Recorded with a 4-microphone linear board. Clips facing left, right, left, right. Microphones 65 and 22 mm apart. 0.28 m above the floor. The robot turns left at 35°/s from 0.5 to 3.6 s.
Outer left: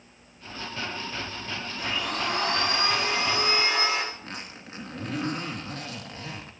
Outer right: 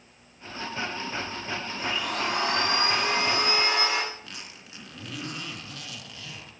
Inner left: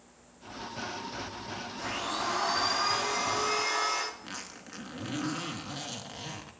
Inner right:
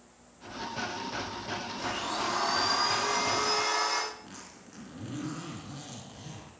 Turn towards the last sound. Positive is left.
turn(degrees=40)  # may be behind; listen again after turning